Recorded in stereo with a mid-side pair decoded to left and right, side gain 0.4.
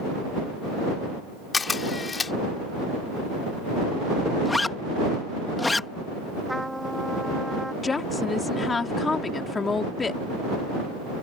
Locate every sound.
1.5 s a camera shutter: 35° left
4.5 s a zipper: 25° left
6.5 s a trumpet: 5° right
7.8 s a woman speaking: 35° left